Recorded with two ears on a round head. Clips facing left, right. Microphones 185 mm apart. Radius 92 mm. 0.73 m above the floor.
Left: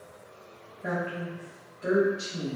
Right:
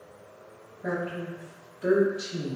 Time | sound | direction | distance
0.8 | a woman speaking | 20° right (ahead or behind) | 1.0 m